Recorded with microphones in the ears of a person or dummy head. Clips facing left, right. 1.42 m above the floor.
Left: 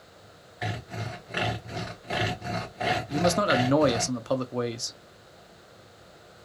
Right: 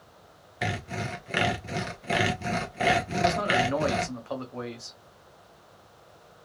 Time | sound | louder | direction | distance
0.6 | sawing | right 3 dB | 40° right (ahead or behind) | 0.8 m
3.1 | a man speaking | left 2 dB | 55° left (ahead or behind) | 0.6 m